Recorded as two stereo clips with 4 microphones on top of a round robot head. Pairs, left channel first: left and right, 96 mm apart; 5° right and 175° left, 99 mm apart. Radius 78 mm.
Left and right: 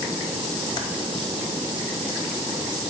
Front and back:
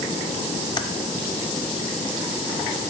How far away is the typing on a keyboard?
About 0.8 m.